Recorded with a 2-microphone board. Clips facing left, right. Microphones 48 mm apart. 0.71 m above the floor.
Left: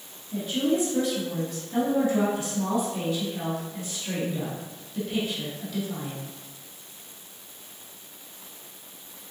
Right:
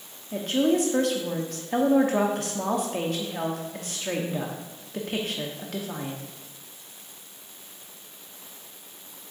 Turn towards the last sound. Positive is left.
turn(degrees=-60)  # may be behind; listen again after turning